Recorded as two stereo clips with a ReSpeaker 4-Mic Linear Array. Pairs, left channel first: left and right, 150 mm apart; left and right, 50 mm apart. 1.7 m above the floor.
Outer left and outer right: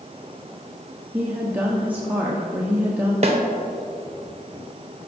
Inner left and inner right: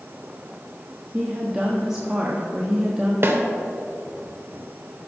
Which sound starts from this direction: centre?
A woman speaking, at 1.1 s.